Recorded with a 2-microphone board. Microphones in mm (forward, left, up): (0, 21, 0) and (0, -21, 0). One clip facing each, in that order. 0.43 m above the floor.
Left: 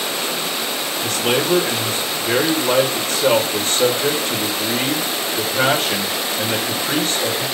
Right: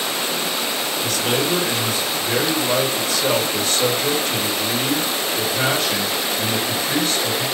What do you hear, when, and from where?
1.0 s a man speaking: 45° left (ahead or behind), 1.6 m